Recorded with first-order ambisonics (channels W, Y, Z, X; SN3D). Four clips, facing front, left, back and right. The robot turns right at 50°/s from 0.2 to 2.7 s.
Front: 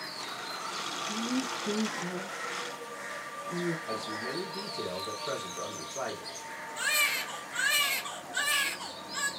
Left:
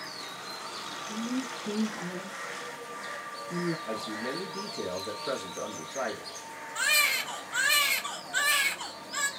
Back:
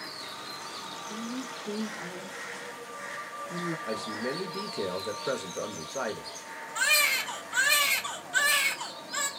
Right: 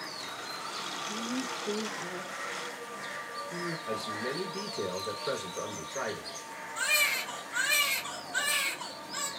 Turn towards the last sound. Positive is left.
turn(degrees=145)